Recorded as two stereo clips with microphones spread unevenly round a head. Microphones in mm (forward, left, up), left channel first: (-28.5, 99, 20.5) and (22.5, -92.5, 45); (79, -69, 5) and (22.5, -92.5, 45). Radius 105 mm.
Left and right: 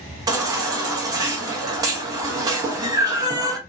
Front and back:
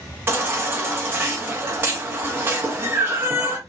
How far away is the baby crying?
About 0.8 m.